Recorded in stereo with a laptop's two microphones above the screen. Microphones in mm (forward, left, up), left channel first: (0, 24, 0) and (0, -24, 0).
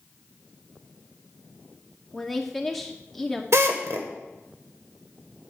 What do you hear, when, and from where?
2.1 s a woman speaking: 5° left (ahead or behind), 2 m
3.5 s a drill: 70° right (ahead or behind), 1.6 m